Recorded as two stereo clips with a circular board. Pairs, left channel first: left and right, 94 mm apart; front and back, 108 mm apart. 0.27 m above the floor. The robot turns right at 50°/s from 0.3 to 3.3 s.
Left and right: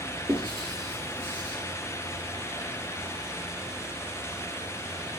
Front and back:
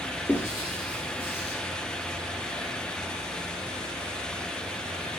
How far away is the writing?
About 0.8 m.